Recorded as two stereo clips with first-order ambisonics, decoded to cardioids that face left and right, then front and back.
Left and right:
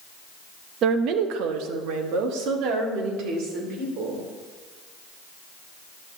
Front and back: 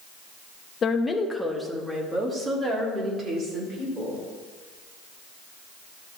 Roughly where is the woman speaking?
Ahead right.